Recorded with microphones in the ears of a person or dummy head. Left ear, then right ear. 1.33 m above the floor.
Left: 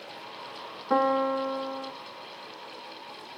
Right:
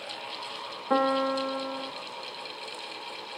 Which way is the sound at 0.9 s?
10° right (ahead or behind).